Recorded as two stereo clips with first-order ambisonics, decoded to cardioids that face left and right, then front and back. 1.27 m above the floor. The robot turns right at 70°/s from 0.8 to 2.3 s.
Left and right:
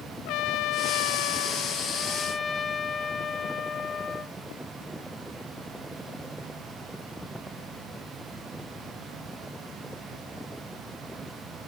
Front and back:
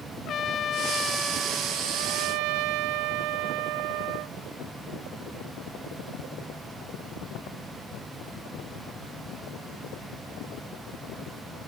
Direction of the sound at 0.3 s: 55° left.